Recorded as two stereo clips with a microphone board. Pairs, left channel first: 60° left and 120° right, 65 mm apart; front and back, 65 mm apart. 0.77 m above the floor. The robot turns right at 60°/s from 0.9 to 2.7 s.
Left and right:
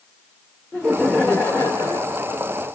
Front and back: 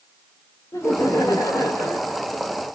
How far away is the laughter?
About 1.9 m.